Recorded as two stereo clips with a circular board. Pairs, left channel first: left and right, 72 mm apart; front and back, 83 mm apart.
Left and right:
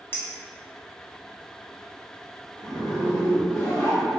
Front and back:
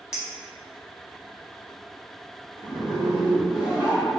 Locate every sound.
0.1 s a clink: 110° left, 0.7 m
2.6 s a zipper: 25° left, 1.2 m